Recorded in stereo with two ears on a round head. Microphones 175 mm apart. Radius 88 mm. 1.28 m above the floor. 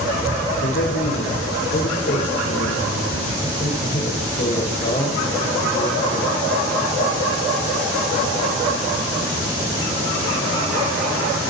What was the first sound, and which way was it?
A man speaking, 60° left (ahead or behind).